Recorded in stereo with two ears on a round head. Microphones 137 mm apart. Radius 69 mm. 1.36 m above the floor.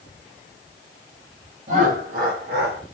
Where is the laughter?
50° right (ahead or behind), 1.2 m; by 2.8 s 75° right (ahead or behind), 1.5 m.